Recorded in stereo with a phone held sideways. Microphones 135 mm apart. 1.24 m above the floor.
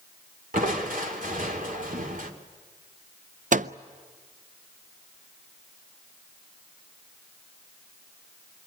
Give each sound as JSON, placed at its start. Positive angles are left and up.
{"t": 0.5, "sound": "crushing", "side_deg": -85, "distance_m": 2.5}
{"t": 3.5, "sound": "a microwave", "side_deg": -70, "distance_m": 0.5}